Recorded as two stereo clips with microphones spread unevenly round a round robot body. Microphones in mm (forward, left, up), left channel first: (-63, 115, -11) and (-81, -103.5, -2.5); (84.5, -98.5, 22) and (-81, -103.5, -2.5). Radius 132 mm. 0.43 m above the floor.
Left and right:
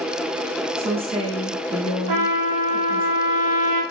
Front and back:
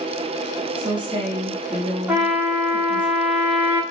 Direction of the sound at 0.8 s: 150° right.